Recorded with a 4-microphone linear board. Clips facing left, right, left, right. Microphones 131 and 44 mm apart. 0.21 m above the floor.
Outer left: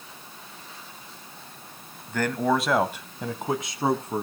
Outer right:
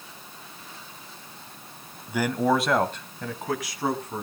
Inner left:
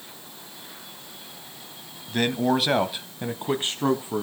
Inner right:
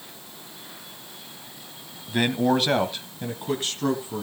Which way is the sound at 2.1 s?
10° right (ahead or behind).